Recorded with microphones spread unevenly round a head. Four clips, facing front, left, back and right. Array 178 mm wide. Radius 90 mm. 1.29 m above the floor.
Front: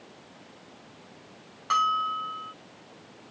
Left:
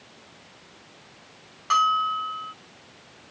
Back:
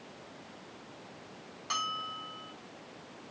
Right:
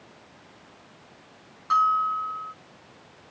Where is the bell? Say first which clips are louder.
Even, front 12 dB; 25° left.